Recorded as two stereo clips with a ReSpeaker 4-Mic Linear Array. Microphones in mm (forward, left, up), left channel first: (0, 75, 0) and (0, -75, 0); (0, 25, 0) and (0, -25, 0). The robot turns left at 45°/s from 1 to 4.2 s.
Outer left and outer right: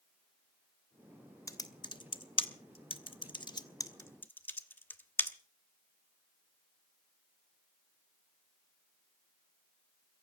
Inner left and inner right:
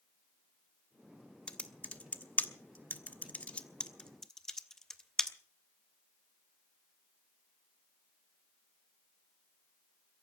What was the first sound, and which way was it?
Typing on a keyboard, 20° left (ahead or behind).